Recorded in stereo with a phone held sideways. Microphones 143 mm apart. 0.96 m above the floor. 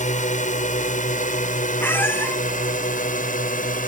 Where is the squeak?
15° left (ahead or behind).